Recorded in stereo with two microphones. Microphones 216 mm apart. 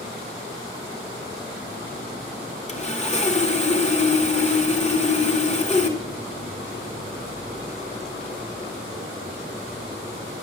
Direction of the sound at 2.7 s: 30° left (ahead or behind).